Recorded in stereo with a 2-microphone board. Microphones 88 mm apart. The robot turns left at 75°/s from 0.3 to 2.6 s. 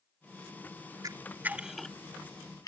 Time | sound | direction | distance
1.0 | a camera shutter | 45° right (ahead or behind) | ?